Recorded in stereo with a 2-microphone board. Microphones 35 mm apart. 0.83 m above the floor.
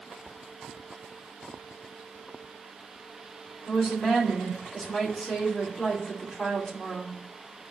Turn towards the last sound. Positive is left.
turn(degrees=25)  # may be behind; listen again after turning